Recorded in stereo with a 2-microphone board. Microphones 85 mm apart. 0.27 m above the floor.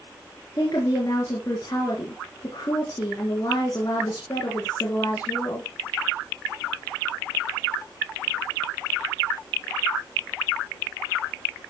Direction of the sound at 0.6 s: 45° left (ahead or behind).